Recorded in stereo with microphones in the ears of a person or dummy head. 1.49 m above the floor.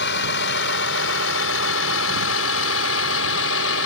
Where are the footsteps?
I don't hear footsteps.